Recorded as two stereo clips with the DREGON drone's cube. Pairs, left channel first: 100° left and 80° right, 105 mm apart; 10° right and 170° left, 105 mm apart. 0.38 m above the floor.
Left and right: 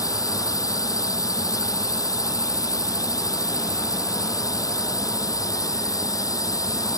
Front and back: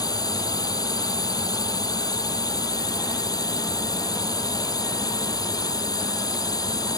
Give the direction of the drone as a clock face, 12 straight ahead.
11 o'clock.